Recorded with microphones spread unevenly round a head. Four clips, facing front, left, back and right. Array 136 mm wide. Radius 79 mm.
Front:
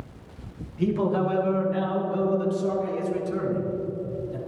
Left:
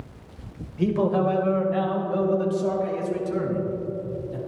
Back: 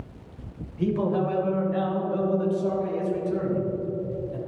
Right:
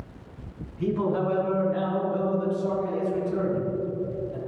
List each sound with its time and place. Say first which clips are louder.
0.8 s a man speaking: left 3 dB, front 1 dB; 95° left, 3 m; by 4.4 s 75° left, 5.5 m